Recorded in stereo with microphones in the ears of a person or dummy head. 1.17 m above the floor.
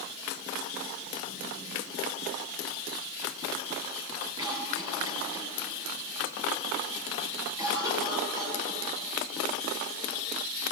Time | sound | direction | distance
4.4 | a cough | 20° right (ahead or behind) | 9 m